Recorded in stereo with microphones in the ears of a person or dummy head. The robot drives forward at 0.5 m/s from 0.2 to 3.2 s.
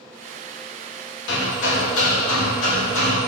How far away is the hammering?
About 1.8 m.